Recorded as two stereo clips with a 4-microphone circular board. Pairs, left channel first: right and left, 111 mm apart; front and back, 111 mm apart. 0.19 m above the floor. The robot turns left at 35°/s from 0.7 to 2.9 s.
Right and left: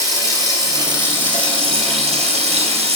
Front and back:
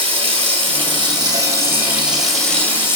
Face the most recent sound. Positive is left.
turn(degrees=70)